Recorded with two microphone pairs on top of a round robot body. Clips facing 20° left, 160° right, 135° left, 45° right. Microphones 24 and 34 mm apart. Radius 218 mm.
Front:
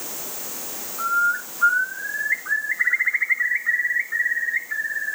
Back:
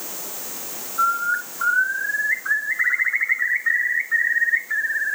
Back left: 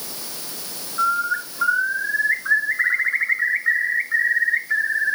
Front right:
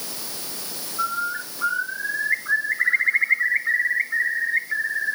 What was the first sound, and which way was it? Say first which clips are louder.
A bird: back 1 dB, back left 5 dB; 160° left.